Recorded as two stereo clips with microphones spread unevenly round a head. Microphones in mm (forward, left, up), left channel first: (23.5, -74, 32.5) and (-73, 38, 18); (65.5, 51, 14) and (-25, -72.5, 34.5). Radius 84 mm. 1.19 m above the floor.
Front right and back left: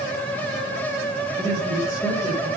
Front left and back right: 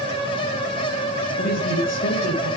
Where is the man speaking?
30° left, 7 m.